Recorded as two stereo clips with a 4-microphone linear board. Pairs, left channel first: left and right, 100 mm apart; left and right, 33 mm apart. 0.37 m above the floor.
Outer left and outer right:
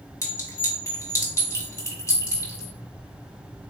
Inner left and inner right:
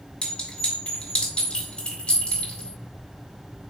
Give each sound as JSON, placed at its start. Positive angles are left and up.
{"t": 0.2, "sound": "a clink", "side_deg": 30, "distance_m": 2.0}